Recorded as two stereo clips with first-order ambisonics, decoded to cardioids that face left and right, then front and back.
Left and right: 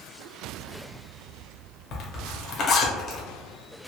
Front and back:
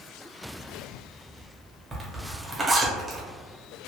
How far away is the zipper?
About 0.8 m.